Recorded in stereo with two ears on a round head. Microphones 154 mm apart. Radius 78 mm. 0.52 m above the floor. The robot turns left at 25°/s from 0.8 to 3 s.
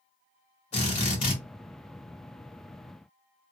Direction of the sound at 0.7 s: 40° left (ahead or behind).